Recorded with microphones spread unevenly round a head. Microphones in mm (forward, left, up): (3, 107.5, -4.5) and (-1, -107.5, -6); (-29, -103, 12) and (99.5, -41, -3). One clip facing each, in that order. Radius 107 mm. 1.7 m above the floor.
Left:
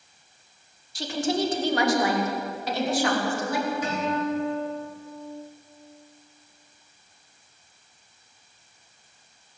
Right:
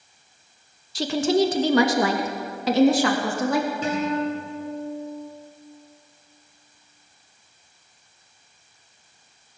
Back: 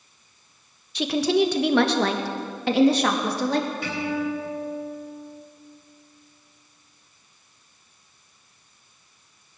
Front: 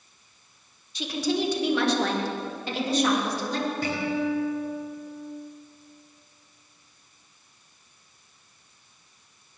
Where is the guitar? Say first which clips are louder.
Right 3 dB, even; 25° right, 10 m.